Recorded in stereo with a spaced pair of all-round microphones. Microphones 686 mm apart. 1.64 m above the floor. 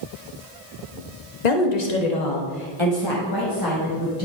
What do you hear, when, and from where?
1.4 s a woman speaking: 75° left (ahead or behind), 1.2 m; by 4.2 s 20° left (ahead or behind), 2.5 m